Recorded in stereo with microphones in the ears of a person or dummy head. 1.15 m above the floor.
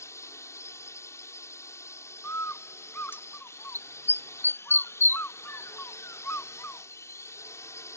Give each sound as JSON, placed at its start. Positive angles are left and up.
{"t": 0.0, "sound": "a drone", "side_deg": 20}
{"t": 2.2, "sound": "a bird", "side_deg": 15}